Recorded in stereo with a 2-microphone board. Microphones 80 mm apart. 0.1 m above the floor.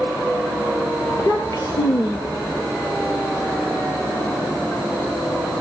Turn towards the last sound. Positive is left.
turn(degrees=45)  # may be behind; listen again after turning